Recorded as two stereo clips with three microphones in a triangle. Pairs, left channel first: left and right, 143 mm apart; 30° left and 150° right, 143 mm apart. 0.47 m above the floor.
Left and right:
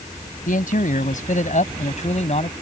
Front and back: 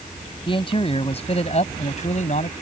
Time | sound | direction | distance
0.5 | a man speaking | 80° left | ?